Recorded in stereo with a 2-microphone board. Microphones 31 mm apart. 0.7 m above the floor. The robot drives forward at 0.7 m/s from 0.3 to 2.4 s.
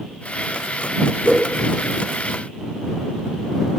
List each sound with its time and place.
1.2 s a whoosh: 60° left (ahead or behind), 0.9 m; by 1.4 s 55° left (ahead or behind), 0.9 m